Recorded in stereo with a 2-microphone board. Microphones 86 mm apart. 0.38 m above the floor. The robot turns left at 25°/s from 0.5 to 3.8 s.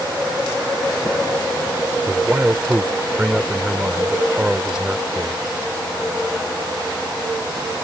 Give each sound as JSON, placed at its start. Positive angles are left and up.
{"t": 2.1, "sound": "a man speaking", "side_deg": -20}